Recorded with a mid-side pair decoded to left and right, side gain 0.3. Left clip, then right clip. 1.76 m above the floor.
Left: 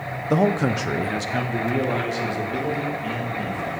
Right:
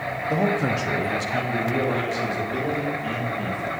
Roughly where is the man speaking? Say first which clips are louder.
Left 3 dB; ahead left.